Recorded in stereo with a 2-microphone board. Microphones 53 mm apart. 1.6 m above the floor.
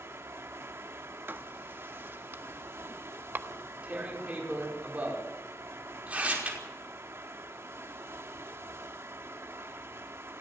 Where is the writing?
45° right (ahead or behind), 1.4 m.